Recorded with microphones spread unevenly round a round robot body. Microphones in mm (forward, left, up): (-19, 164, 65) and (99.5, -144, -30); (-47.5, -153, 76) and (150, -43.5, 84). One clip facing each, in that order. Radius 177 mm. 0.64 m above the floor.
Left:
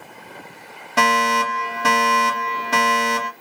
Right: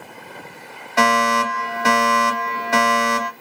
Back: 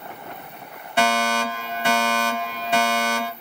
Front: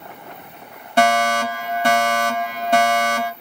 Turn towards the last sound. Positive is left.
turn(degrees=65)